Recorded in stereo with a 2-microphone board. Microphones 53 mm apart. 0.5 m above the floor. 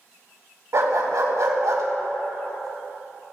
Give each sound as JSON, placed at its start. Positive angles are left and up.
{"t": 0.7, "sound": "a dog barking", "side_deg": -75, "distance_m": 1.3}